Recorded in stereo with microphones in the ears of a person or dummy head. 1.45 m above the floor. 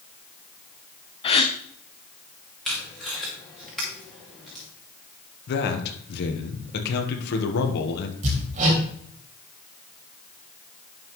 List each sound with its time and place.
1.2 s a gasp: 30° left (ahead or behind), 0.9 m
2.6 s tape being pulled: centre (ahead or behind), 2.5 m
5.5 s a man speaking: 60° left (ahead or behind), 1.4 m
8.2 s hammering: 40° right (ahead or behind), 3.5 m